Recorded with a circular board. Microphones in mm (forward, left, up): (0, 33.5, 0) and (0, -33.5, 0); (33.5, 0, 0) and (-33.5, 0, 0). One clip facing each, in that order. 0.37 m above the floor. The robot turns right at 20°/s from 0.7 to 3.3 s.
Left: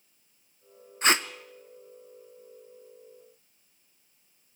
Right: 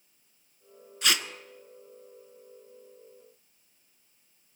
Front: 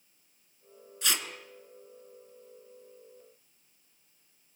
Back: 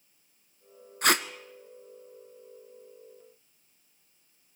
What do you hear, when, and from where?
1.0 s tape being pulled: 145° left, 0.8 m; by 1.3 s 150° left, 0.8 m